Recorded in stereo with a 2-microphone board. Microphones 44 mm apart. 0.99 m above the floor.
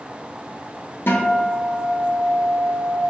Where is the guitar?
60° left (ahead or behind), 0.7 m.